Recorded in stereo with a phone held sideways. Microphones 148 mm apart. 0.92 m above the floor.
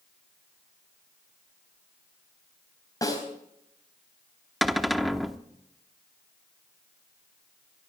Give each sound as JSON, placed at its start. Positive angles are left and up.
{"t": 3.0, "sound": "a snare drum", "side_deg": 25, "distance_m": 4.0}
{"t": 4.6, "sound": "a cupboard door", "side_deg": 0, "distance_m": 0.8}